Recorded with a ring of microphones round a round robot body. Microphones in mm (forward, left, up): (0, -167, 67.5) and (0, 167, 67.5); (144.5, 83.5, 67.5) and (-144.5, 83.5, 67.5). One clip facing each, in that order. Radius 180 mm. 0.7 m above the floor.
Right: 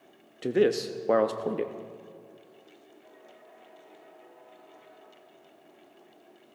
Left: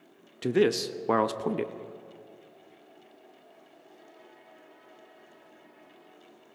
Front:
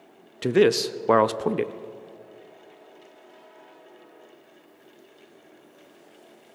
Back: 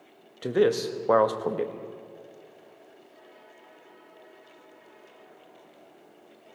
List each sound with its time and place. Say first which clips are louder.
0.4 s a man speaking: even, front 4 dB; 30° left, 0.7 m